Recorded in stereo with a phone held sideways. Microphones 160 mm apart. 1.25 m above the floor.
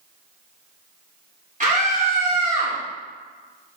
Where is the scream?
55° right (ahead or behind), 3 m.